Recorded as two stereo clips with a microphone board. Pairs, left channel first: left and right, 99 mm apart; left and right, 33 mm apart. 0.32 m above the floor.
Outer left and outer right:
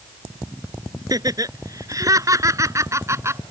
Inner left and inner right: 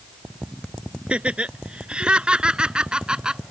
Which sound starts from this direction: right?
Laughter, at 1.1 s.